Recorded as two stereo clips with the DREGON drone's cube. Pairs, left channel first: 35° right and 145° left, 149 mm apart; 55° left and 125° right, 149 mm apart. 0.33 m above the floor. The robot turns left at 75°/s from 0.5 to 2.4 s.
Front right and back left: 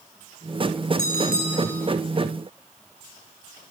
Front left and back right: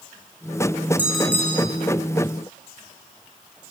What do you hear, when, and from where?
1.0 s a bell: 160° left, 6 m; by 1.7 s 105° left, 6 m